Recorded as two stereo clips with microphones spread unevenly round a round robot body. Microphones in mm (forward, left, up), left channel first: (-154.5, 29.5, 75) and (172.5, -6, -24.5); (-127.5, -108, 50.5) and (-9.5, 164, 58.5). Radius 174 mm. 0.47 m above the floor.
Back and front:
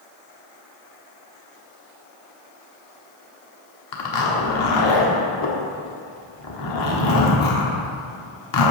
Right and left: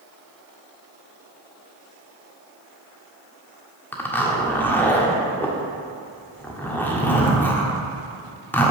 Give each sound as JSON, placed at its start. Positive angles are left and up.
{"t": 3.9, "sound": "a zipper", "azimuth_deg": 165, "distance_m": 1.6}